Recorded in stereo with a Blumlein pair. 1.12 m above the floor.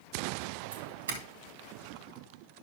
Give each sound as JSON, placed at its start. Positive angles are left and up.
{"t": 0.7, "sound": "a doorbell", "azimuth_deg": -70, "distance_m": 2.5}